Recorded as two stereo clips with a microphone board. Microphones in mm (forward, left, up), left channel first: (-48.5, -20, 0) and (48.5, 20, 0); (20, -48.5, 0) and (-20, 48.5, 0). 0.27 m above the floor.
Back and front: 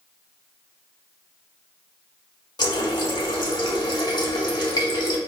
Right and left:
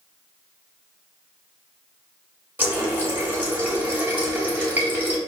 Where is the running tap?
Straight behind, 0.9 m.